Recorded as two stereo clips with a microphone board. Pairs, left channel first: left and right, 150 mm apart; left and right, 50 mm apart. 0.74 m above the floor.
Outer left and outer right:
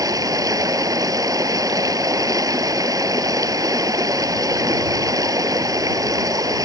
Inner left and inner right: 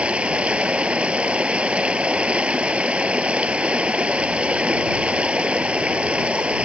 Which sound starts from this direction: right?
Running water, at 0.0 s.